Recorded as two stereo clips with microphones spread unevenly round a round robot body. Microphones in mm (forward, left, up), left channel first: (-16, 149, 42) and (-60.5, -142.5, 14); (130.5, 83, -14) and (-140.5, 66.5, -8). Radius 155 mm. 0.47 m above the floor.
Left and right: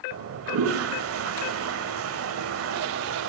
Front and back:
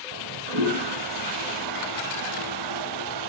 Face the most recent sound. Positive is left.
turn(degrees=-145)